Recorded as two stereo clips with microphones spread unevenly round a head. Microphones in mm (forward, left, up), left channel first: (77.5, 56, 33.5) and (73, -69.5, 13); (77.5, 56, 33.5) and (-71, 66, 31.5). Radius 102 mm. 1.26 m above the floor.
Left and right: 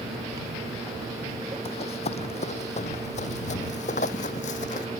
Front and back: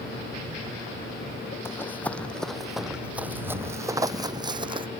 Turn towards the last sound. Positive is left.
turn(degrees=125)